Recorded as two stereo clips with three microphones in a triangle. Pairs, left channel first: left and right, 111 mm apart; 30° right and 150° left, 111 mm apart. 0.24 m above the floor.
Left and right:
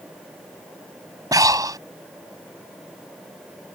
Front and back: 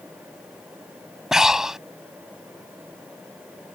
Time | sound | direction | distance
1.3 | breathing | 125° right | ?